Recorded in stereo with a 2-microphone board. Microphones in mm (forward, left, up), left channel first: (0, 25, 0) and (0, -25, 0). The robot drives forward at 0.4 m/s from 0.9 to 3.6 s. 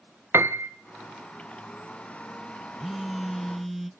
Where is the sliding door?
I don't hear a sliding door.